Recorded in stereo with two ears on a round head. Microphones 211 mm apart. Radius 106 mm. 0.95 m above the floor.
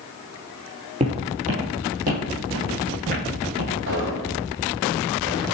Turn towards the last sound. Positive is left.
turn(degrees=-55)  # may be behind; listen again after turning